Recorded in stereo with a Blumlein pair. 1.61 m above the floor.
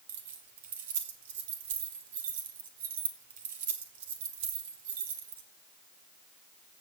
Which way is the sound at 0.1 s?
55° right.